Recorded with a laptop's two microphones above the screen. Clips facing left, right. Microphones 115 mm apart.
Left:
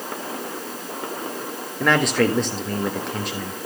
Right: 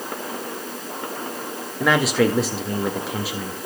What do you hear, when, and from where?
1.8 s a man speaking: 5° right (ahead or behind), 1.8 m